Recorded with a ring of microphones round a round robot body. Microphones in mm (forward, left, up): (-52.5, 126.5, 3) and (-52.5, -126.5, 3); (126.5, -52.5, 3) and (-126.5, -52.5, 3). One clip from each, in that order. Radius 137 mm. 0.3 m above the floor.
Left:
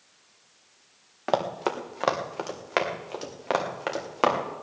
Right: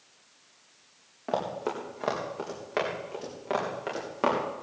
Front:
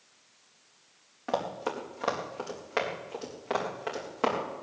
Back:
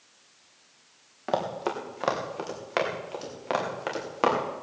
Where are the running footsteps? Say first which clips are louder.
Left 4 dB, back 3 dB; 100° left, 2.5 m; by 4.4 s 115° left, 4.5 m.